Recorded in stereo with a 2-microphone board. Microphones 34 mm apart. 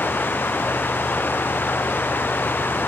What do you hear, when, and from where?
0.0 s running water: 75° left (ahead or behind)